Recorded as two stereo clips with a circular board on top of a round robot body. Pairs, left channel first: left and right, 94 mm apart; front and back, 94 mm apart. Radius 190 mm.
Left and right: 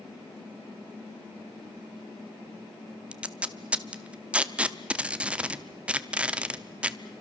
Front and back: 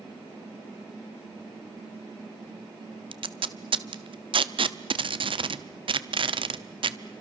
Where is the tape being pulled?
165° right, 1.0 m.